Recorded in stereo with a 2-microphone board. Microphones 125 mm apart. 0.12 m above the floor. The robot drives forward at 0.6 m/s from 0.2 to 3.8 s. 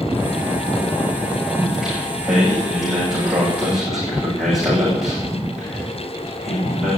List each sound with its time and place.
1.5 s singing: centre (ahead or behind), 8.5 m